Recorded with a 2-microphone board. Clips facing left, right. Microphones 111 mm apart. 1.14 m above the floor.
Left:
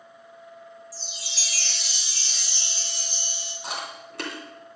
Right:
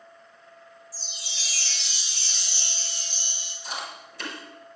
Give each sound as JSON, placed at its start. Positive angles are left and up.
{"t": 0.9, "sound": "a chime", "side_deg": 75, "distance_m": 1.6}
{"t": 3.6, "sound": "chewing", "side_deg": 75, "distance_m": 3.0}